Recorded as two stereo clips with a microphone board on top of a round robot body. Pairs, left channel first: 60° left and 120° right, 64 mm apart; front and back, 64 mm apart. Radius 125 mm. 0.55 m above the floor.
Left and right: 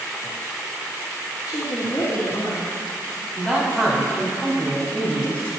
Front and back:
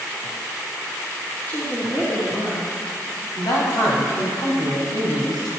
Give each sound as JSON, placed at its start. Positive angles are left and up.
{"t": 1.5, "sound": "a woman speaking", "azimuth_deg": 65, "distance_m": 1.9}
{"t": 3.4, "sound": "a man speaking", "azimuth_deg": -10, "distance_m": 4.0}